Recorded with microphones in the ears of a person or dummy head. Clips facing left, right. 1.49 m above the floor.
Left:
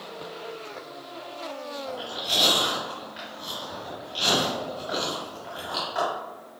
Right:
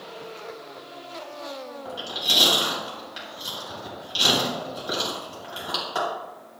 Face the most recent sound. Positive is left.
turn(degrees=-75)  # may be behind; listen again after turning